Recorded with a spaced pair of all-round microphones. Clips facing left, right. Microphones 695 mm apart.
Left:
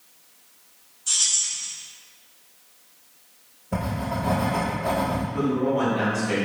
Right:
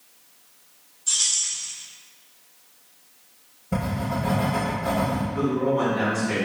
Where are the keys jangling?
40° left (ahead or behind), 1.9 m.